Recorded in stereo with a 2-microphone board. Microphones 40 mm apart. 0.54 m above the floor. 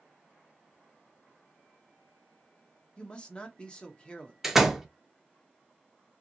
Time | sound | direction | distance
3.0 | a man speaking | 20° left (ahead or behind) | 0.7 m
4.4 | a door slam | 10° right (ahead or behind) | 0.6 m